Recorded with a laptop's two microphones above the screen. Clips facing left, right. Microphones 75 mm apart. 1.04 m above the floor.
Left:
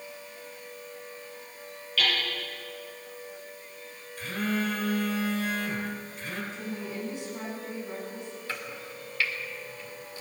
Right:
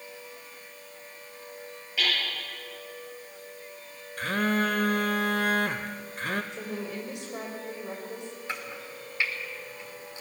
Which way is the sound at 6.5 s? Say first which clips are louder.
Right 1 dB; 85° right.